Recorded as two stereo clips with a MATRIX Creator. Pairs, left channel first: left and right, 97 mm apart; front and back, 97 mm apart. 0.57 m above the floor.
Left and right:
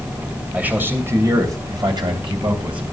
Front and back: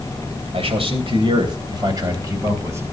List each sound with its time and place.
0.5 s a man speaking: 165° right, 3 m; by 2.8 s 115° right, 3.5 m